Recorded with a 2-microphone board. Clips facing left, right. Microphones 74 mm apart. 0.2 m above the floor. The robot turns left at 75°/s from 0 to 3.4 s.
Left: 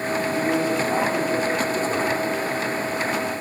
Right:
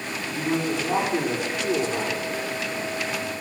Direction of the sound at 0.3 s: 35° left.